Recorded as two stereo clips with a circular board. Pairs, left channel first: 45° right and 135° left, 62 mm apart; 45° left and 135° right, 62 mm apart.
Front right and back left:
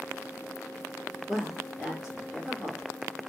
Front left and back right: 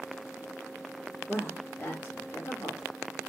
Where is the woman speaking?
35° left, 1.4 m.